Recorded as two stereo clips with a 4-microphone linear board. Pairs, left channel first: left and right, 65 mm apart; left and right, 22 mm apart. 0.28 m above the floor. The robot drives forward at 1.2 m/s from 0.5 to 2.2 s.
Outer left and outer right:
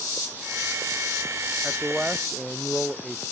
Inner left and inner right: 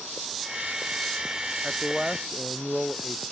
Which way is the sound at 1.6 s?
Centre (ahead or behind).